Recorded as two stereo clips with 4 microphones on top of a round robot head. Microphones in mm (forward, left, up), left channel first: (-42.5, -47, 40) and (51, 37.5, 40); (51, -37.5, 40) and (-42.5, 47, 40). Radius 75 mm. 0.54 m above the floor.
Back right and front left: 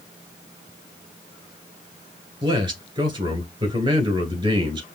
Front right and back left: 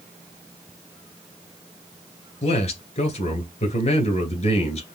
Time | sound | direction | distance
2.4 | a man speaking | 10° right | 2.5 m